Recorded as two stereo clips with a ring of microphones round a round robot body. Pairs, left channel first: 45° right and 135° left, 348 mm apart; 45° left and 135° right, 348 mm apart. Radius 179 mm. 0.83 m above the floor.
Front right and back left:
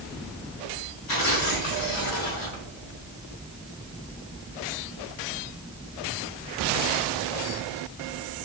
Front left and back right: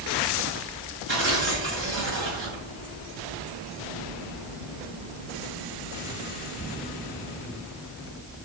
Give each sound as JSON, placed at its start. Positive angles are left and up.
{"t": 1.1, "sound": "tearing paper", "azimuth_deg": -75, "distance_m": 4.5}